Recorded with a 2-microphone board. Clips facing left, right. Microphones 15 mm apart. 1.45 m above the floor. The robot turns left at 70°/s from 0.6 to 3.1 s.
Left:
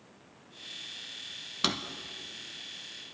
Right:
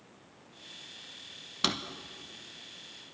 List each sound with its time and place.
1.6 s a drawer: centre (ahead or behind), 0.6 m